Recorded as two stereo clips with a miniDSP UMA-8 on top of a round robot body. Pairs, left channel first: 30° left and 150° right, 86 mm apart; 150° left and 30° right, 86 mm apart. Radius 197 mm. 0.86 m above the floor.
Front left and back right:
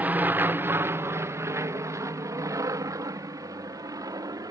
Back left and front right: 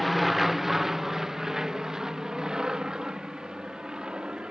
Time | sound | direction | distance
0.0 | an aircraft | 120° right | ?